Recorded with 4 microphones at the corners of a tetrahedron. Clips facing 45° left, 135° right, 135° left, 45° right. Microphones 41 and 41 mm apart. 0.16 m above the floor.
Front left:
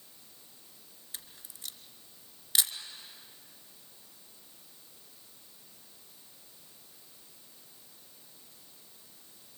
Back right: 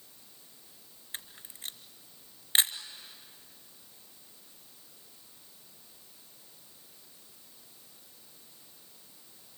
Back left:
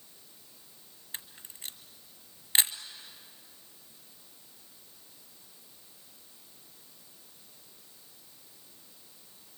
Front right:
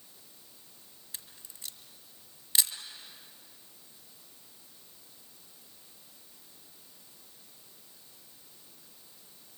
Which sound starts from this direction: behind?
A camera shutter, at 1.1 s.